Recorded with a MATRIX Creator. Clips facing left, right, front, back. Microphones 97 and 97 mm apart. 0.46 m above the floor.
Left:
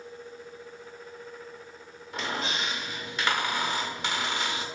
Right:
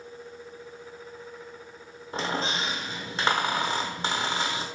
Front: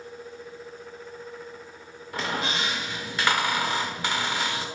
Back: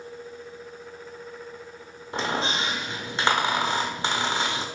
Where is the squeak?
130° right, 1.0 m.